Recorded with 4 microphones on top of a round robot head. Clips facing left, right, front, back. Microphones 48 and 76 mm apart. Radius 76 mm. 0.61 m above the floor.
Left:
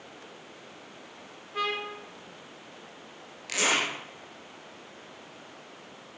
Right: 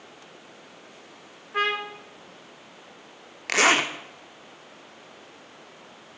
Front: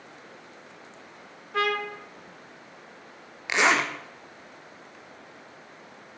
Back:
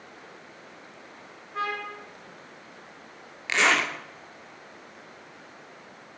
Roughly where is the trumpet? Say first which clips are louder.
Right 5 dB, front 4 dB; ahead right.